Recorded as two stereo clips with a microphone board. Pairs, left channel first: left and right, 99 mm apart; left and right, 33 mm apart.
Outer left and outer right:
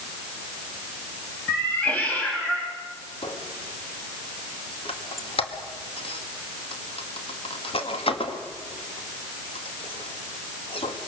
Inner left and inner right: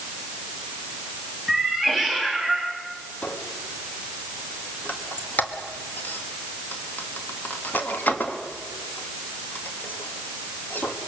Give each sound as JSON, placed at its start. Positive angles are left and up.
{"t": 1.5, "sound": "a cat meowing", "side_deg": 15, "distance_m": 3.5}
{"t": 3.2, "sound": "a squeak", "side_deg": 70, "distance_m": 1.8}